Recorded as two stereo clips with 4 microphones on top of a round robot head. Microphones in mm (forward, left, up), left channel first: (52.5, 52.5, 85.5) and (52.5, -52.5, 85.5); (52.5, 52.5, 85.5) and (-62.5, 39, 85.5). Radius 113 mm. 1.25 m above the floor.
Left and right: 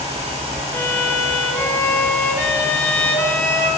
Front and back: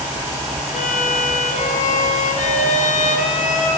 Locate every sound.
0.7 s a violin: 20° left, 5 m